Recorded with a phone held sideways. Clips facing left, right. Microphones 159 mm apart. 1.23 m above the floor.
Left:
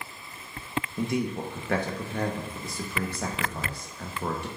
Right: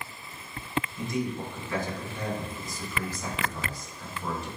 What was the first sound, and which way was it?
A man speaking, 65° left (ahead or behind).